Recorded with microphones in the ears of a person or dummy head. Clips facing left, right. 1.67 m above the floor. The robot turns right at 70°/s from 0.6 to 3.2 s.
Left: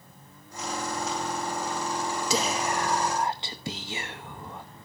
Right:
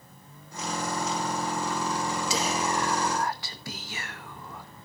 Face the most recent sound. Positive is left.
turn(degrees=160)